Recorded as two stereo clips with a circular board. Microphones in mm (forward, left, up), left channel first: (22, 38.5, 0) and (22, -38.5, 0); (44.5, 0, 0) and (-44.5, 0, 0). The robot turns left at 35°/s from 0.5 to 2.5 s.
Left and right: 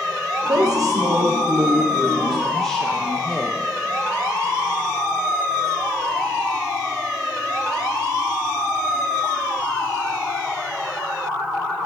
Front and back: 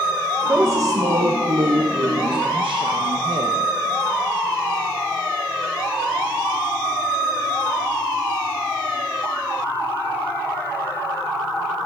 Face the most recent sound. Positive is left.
turn(degrees=170)